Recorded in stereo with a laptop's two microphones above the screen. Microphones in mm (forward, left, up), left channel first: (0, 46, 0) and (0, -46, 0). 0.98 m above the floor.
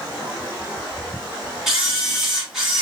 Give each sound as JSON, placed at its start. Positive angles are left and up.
{"t": 1.7, "sound": "a camera shutter", "side_deg": -5, "distance_m": 2.0}